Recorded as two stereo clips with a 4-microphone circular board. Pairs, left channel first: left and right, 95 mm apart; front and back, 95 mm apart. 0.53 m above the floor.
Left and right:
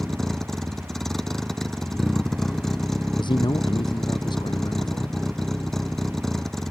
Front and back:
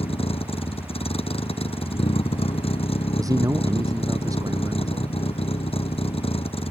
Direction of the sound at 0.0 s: 5° left.